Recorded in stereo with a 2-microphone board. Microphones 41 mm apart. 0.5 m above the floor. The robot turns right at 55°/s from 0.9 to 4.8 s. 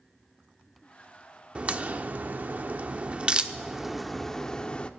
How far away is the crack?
About 0.5 m.